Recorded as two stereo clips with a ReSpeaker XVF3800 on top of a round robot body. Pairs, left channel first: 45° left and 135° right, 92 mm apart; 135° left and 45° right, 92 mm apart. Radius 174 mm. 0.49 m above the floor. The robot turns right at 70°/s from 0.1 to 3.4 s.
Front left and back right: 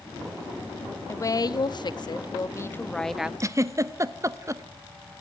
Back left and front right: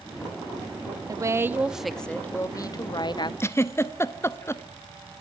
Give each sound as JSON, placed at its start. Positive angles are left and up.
{"t": 1.1, "sound": "a woman speaking", "azimuth_deg": -10, "distance_m": 1.2}
{"t": 3.4, "sound": "a giggle", "azimuth_deg": -175, "distance_m": 1.1}